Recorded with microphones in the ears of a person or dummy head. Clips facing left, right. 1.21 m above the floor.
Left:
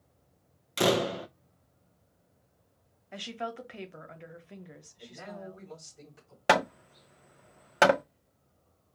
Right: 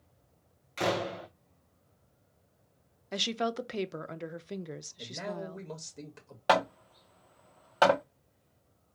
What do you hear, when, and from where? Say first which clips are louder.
0.8 s a door slam: left 5 dB; 40° left (ahead or behind), 0.5 m
3.1 s a woman speaking: right 6 dB; 50° right (ahead or behind), 0.6 m
5.0 s a man speaking: right 4 dB; 80° right, 2 m
6.5 s hammering: left 1 dB; 20° left (ahead or behind), 0.6 m